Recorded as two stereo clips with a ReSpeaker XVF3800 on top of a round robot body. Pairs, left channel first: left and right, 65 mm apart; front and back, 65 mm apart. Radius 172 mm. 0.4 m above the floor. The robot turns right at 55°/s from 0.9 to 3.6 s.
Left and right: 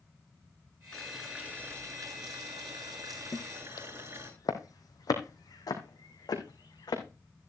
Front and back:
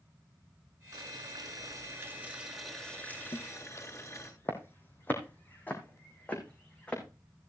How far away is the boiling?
About 7 m.